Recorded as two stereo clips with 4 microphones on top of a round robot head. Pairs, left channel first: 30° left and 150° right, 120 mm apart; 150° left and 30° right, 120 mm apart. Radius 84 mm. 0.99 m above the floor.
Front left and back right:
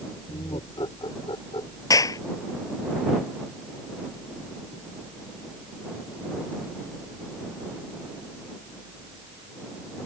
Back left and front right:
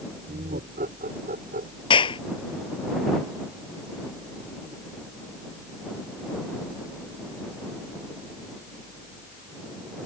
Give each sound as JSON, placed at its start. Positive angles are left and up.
{"t": 0.3, "sound": "laughter", "azimuth_deg": -25}
{"t": 1.9, "sound": "a clap", "azimuth_deg": 95}